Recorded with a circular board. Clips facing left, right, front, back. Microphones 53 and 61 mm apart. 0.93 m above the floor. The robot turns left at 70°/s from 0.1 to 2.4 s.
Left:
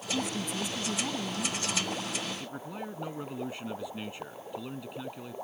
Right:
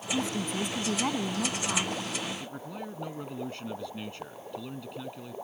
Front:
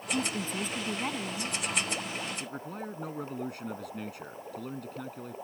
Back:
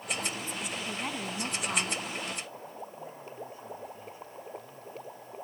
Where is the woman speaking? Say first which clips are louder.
Right 2 dB, front 5 dB; 15° right; by 2.0 s 150° right.